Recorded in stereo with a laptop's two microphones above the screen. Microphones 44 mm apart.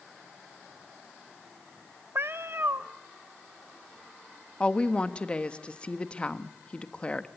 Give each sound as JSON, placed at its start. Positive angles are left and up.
{"t": 2.1, "sound": "a cat meowing", "side_deg": -60, "distance_m": 0.7}
{"t": 4.6, "sound": "a woman speaking", "side_deg": 25, "distance_m": 1.3}